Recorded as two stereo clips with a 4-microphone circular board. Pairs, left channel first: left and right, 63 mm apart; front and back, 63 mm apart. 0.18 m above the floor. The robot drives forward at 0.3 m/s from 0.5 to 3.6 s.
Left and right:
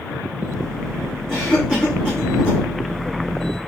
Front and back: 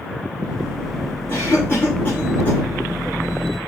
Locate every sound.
1.3 s a cough: 15° left, 1.4 m; by 2.6 s 30° left, 1.2 m